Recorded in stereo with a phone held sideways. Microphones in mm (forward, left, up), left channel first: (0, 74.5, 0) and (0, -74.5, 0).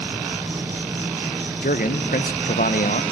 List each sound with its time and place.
0.0 s an insect: 15° right (ahead or behind), 1.7 m
1.6 s a man speaking: 70° left (ahead or behind), 1.1 m